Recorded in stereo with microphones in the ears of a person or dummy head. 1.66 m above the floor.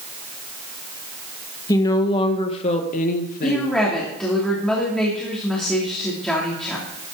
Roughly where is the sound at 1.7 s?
Centre.